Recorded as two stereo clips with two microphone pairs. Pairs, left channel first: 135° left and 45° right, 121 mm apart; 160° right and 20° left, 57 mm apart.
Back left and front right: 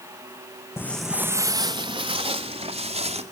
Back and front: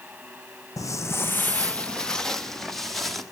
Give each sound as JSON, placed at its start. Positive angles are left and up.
{"t": 0.8, "sound": "footsteps", "azimuth_deg": -160, "distance_m": 0.6}